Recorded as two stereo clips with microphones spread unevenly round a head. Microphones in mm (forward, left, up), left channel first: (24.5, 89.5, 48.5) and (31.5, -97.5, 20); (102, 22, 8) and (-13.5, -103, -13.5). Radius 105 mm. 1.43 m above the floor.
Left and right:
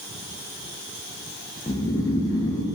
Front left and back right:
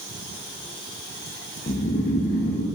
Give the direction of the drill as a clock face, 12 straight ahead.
No drill in this recording.